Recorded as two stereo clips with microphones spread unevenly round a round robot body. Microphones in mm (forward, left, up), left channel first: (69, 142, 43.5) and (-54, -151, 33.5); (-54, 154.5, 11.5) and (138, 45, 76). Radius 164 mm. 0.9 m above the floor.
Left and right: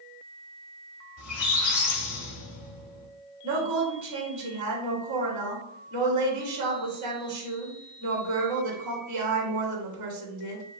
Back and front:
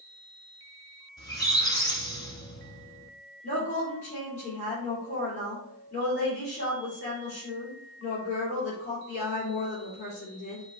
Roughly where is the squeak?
Left.